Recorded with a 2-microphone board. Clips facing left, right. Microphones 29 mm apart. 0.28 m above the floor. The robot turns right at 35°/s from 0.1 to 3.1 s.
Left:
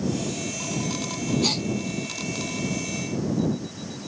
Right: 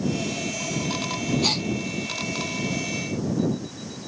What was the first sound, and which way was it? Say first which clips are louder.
A gasp: right 1 dB; 10° right (ahead or behind).